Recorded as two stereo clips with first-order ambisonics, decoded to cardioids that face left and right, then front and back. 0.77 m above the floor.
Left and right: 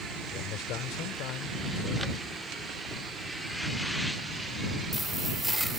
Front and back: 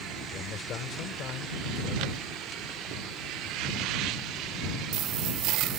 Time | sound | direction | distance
0.3 | a man speaking | 55° left | ?